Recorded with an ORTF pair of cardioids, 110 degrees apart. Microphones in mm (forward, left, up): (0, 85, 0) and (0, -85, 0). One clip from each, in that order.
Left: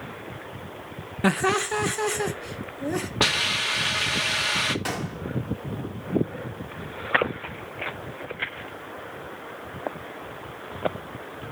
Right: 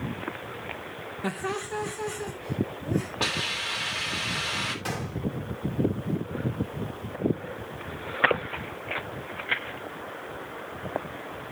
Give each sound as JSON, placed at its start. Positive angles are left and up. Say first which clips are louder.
{"t": 1.2, "sound": "laughter", "louder": "left 9 dB", "azimuth_deg": 45, "distance_m": 0.6}
{"t": 3.2, "sound": "a hiss", "louder": "left 7 dB", "azimuth_deg": 50, "distance_m": 2.5}
{"t": 4.8, "sound": "a gunshot", "louder": "left 3 dB", "azimuth_deg": 25, "distance_m": 2.5}